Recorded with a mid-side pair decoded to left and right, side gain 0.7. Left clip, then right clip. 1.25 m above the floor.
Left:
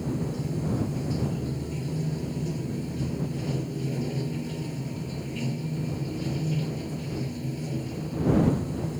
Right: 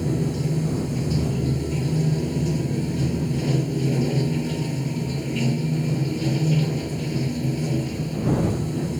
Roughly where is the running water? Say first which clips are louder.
Right 6 dB; ahead right.